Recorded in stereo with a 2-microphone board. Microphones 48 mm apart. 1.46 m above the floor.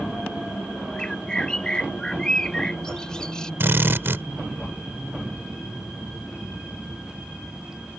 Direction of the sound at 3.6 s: 55° right (ahead or behind).